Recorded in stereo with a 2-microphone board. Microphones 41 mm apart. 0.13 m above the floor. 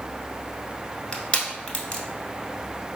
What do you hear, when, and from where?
1.1 s crushing: 30° left (ahead or behind), 1.0 m